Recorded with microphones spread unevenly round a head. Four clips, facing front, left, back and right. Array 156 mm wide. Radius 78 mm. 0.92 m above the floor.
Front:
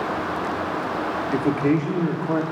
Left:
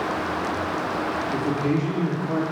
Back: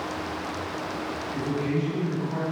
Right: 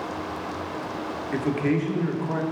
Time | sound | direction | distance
1.3 | a man speaking | 5° right | 2.5 m